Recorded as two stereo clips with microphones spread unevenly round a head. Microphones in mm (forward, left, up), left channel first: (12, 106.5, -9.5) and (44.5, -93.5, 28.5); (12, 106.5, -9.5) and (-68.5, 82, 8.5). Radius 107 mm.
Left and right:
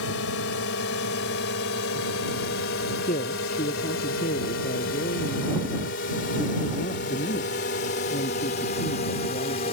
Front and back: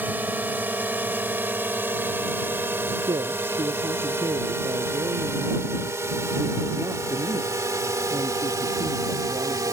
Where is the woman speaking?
160° left.